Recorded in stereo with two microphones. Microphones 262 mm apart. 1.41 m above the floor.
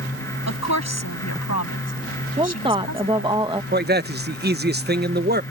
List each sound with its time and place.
0.5 s a woman speaking: 85° left
2.4 s a woman speaking: 20° right (ahead or behind)
3.7 s a man speaking: 40° right (ahead or behind)